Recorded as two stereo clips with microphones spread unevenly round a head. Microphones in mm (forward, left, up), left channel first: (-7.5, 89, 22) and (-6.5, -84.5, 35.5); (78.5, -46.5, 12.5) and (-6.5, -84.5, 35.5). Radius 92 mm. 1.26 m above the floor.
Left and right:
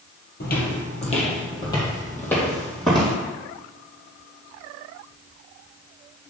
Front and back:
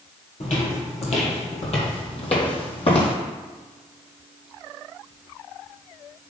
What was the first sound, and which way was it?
Footsteps, 60° left.